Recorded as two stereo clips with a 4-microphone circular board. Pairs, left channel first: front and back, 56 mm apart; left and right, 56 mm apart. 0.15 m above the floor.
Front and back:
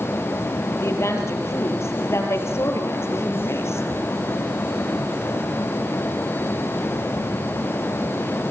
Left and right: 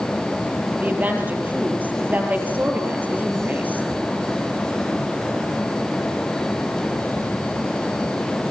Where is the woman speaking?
35° right, 4.5 m.